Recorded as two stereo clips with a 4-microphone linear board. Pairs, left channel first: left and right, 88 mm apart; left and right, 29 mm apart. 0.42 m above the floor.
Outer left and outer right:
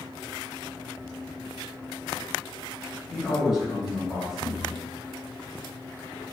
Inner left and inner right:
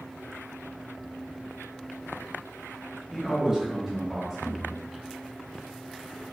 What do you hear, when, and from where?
3.1 s a man speaking: centre (ahead or behind), 1.0 m